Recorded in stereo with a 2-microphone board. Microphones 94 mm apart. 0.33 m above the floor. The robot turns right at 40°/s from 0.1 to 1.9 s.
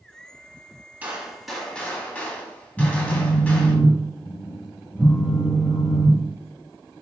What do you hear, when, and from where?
1.0 s a gunshot: 20° right, 0.7 m; by 3.8 s 15° left, 0.7 m
2.8 s a phone buzzing: centre (ahead or behind), 1.3 m